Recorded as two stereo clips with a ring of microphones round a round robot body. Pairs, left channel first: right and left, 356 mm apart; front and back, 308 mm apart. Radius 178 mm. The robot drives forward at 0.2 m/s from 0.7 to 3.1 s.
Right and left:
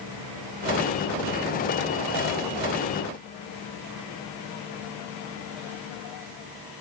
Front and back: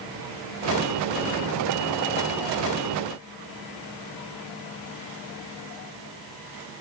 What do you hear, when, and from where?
Only background noise.